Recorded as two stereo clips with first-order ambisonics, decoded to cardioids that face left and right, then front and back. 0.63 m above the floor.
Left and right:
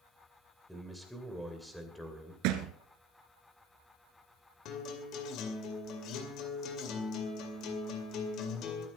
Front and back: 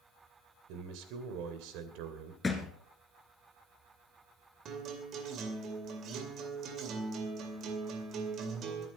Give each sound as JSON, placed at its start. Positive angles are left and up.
{"t": 0.7, "sound": "a man speaking", "azimuth_deg": 180, "distance_m": 2.5}
{"t": 2.4, "sound": "a thud", "azimuth_deg": -80, "distance_m": 1.5}
{"t": 4.7, "sound": "a guitar", "azimuth_deg": 130, "distance_m": 2.5}